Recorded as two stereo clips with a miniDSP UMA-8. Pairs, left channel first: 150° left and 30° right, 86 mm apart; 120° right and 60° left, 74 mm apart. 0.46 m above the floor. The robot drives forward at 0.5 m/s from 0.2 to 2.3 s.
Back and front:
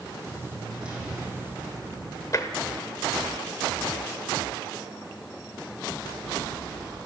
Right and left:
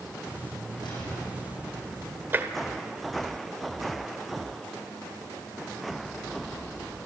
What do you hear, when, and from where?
0.8 s an explosion: 110° right, 7.5 m
2.3 s tapping: 115° left, 1.4 m